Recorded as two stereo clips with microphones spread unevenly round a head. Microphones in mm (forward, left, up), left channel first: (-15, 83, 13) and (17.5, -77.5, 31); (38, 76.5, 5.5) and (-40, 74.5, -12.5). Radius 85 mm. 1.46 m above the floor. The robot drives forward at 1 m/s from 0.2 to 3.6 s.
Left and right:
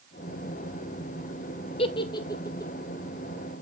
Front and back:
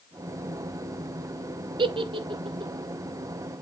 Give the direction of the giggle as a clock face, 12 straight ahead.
7 o'clock.